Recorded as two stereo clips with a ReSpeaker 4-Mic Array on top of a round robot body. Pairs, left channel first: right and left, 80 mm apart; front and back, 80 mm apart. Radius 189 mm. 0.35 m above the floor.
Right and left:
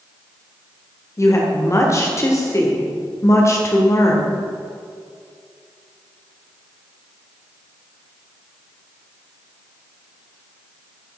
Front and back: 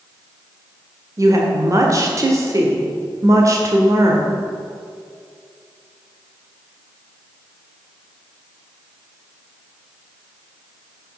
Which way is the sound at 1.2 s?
140° right.